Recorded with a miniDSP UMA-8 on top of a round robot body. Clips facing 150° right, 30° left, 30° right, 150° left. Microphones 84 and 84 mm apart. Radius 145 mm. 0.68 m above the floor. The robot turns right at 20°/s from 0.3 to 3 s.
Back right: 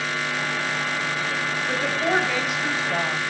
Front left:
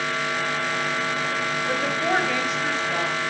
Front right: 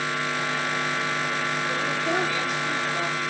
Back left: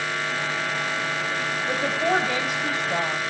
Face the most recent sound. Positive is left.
turn(degrees=135)